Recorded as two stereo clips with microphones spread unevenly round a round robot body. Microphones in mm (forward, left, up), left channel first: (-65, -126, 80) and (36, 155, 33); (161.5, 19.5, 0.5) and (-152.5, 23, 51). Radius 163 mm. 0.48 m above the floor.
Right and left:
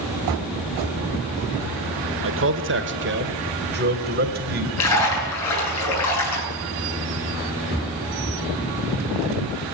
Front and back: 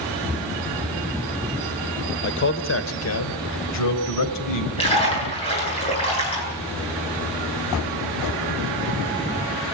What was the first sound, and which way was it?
A man speaking, 40° left.